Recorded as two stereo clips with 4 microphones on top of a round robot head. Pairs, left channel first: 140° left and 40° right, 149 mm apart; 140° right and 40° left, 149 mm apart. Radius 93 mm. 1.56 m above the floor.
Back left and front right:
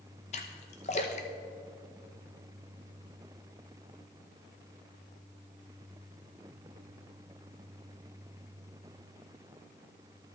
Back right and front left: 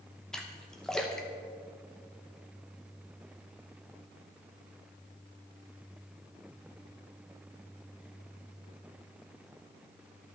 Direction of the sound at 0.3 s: 135° left.